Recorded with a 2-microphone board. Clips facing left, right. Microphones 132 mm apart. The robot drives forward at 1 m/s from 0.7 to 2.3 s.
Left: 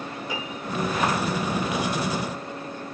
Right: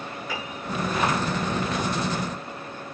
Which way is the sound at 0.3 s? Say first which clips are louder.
Left 1 dB; 15° left (ahead or behind).